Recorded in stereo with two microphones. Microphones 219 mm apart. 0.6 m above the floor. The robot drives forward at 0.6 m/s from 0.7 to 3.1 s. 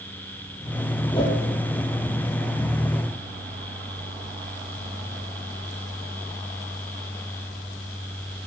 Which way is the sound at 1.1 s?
20° left (ahead or behind).